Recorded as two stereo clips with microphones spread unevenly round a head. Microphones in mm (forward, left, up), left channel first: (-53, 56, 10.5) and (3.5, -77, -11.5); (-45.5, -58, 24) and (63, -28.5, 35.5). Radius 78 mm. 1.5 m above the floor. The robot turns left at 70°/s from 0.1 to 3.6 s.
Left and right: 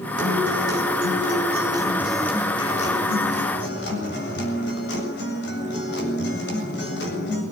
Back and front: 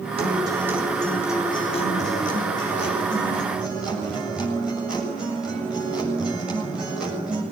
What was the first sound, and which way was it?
A guitar, 20° right.